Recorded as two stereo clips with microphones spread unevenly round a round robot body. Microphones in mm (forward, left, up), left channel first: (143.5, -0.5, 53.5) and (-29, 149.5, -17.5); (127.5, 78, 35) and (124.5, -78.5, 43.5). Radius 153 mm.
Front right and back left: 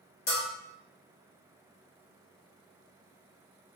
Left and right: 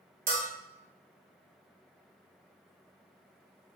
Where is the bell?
100° right, 1.1 m.